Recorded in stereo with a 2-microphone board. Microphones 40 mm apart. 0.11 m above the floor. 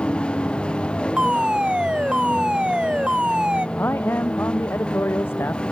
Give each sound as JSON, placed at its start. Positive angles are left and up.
{"t": 0.0, "sound": "a vehicle", "side_deg": 25}
{"t": 1.2, "sound": "a fire alarm", "side_deg": -25}
{"t": 3.8, "sound": "a man speaking", "side_deg": 70}